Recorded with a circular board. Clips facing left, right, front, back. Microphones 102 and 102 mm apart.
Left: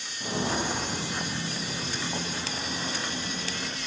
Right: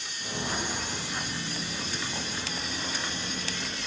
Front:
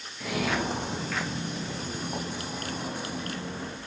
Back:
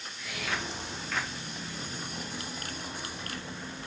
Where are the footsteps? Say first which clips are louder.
Left 5 dB, front 8 dB; 30° left, 1.4 m; by 3.8 s 25° left, 4 m.